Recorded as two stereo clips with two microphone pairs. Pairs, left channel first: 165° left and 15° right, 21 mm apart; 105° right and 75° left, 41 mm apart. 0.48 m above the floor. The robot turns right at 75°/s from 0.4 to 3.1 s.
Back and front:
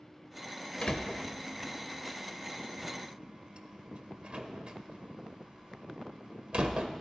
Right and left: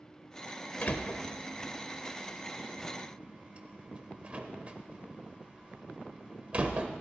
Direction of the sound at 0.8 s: 155° right.